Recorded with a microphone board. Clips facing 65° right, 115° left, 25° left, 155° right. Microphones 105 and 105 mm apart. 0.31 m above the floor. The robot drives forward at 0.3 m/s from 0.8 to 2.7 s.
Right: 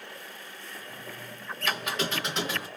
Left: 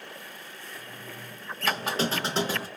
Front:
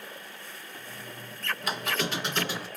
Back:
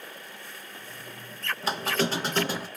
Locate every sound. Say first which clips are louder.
1.6 s a squeak: left 3 dB, back 4 dB; 155° left, 0.6 m; by 2.7 s 165° left, 0.9 m